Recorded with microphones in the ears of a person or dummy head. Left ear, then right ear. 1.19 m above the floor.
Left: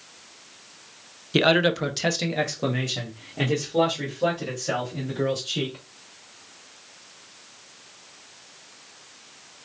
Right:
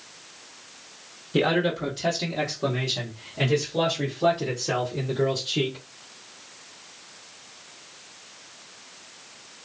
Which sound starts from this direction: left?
A man speaking, at 1.3 s.